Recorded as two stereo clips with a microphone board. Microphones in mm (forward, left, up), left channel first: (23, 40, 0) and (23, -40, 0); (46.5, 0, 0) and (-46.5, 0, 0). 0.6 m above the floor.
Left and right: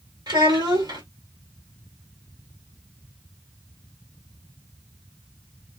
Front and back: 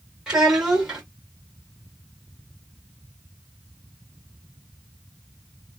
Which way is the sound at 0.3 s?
100° right.